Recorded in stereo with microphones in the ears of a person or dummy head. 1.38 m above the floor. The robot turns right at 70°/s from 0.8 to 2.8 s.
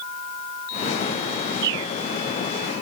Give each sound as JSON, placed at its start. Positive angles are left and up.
{"t": 1.6, "sound": "a bird", "side_deg": -60}